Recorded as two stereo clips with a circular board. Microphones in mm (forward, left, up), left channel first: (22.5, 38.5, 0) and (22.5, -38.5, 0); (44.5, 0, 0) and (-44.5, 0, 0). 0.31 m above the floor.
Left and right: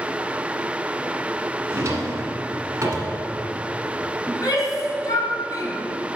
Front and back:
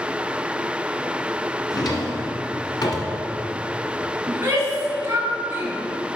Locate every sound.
1.7 s a drawer: 40° right, 1.8 m
4.3 s a shout: 125° left, 2.5 m